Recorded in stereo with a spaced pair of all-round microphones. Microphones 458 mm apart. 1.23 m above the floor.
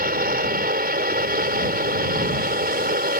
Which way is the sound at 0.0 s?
20° right (ahead or behind).